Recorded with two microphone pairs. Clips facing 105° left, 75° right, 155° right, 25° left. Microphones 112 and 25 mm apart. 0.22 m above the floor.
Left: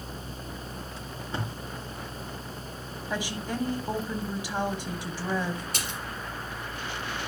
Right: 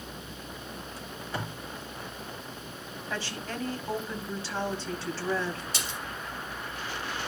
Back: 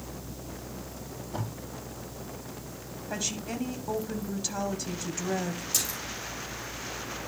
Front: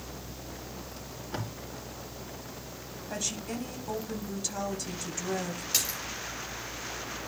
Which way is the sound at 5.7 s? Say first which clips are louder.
Left 1 dB, front 2 dB; 70° left.